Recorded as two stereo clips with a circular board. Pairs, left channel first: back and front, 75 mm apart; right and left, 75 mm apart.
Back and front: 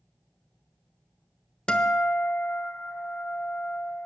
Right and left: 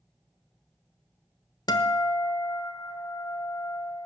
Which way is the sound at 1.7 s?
105° right.